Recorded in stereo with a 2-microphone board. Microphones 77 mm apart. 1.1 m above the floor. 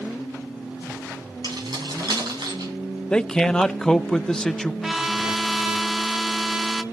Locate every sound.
1.4 s keys jangling: 70° right (ahead or behind), 8 m; by 2.7 s 85° right, 7.5 m
3.1 s a man speaking: 10° left (ahead or behind), 0.5 m
4.8 s a trumpet: 5° right (ahead or behind), 1.0 m